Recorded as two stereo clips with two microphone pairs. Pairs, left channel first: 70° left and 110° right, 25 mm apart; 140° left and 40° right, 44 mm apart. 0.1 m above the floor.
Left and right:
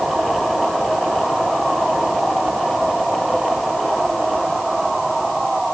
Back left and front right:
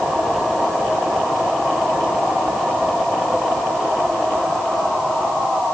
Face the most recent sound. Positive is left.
No sound to turn to.